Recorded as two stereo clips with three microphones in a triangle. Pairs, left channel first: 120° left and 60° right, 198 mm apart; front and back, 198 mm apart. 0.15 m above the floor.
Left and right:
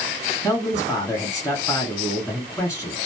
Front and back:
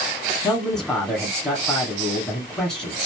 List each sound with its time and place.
0.4 s a man speaking: 80° left, 1.1 m